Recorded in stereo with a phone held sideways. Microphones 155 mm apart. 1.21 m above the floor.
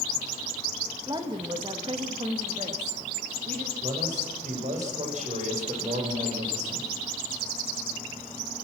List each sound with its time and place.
1.1 s a woman speaking: 25° right (ahead or behind), 1.4 m; by 3.7 s 55° right (ahead or behind), 2.5 m
3.8 s a man speaking: 50° right (ahead or behind), 5 m